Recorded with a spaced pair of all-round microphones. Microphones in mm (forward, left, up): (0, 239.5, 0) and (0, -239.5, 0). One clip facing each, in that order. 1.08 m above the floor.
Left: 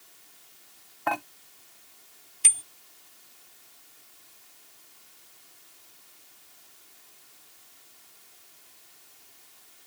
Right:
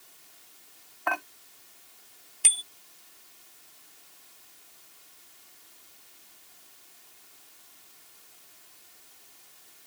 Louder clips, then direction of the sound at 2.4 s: Even; 40° left (ahead or behind).